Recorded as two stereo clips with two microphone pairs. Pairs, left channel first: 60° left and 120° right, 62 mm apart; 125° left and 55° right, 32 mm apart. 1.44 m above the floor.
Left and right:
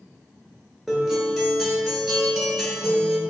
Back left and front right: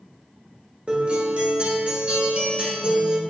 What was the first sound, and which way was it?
A guitar, 35° right.